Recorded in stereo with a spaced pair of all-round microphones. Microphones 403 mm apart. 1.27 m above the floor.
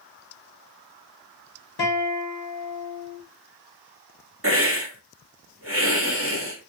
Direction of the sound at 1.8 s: 65° left (ahead or behind).